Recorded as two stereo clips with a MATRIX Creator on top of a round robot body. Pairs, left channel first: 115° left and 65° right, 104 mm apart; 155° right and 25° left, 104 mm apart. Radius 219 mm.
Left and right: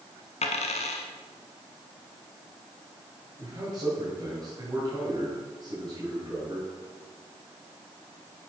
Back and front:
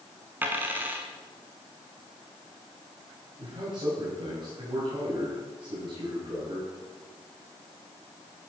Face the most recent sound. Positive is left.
turn(degrees=-20)